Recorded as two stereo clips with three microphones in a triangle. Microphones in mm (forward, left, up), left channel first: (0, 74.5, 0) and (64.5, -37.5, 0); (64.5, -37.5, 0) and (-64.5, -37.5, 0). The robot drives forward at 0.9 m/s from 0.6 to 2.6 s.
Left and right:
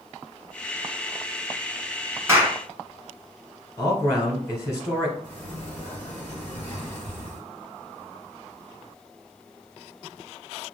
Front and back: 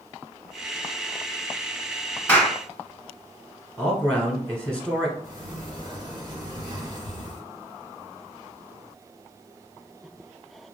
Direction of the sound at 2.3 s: 55° right.